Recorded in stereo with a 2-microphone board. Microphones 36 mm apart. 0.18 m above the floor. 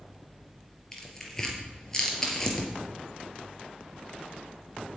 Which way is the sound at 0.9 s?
15° left (ahead or behind).